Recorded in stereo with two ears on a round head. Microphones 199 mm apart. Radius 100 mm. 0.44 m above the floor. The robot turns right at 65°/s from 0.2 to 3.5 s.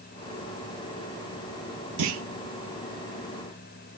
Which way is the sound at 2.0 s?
85° right.